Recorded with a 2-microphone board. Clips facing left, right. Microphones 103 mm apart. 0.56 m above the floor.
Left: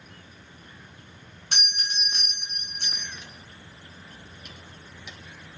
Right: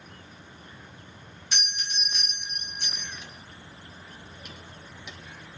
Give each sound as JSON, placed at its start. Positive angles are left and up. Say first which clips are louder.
{"t": 1.5, "sound": "a doorbell", "louder": "left 2 dB", "side_deg": 60, "distance_m": 3.0}